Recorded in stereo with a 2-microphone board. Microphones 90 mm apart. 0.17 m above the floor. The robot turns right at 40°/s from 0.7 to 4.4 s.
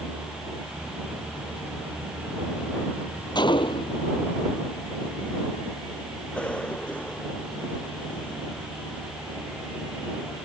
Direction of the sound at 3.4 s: 55° left (ahead or behind).